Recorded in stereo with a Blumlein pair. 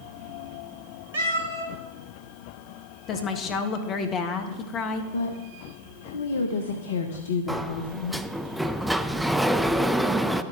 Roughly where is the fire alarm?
I don't hear a fire alarm.